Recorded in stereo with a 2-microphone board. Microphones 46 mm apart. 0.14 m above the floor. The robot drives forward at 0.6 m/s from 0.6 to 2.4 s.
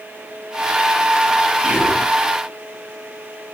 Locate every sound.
1.6 s whispering: 30° right (ahead or behind), 1.7 m